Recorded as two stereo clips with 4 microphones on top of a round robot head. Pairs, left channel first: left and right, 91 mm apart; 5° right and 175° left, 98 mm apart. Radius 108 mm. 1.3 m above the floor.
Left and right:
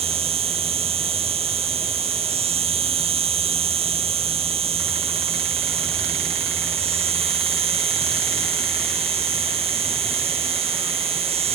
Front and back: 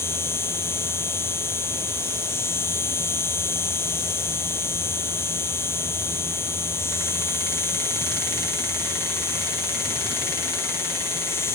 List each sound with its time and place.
0.0 s an insect: 75° right